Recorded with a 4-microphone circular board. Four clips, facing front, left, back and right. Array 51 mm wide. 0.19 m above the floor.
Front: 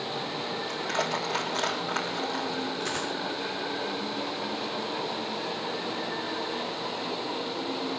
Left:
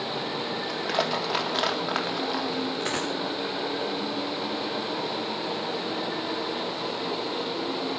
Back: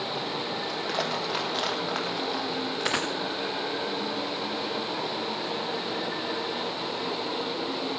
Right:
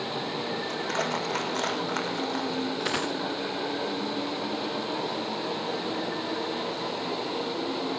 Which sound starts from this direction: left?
Crushing, at 0.7 s.